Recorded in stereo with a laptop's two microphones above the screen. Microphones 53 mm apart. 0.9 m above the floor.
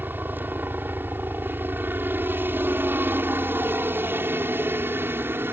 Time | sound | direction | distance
0.0 | a helicopter | 40° right (ahead or behind) | ?